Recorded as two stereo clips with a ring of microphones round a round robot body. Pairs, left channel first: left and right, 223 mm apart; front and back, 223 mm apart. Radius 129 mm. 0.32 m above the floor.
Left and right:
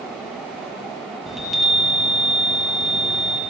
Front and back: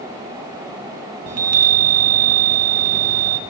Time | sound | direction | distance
1.3 | a chime | straight behind | 2.5 m